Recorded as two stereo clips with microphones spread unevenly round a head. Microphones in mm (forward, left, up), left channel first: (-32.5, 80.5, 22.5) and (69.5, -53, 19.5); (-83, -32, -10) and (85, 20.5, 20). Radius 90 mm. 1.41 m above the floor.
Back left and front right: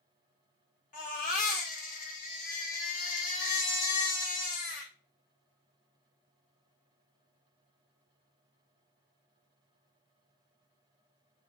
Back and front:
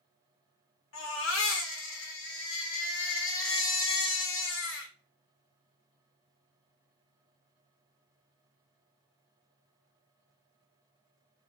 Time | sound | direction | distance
0.9 | a baby crying | 175° left | 1.2 m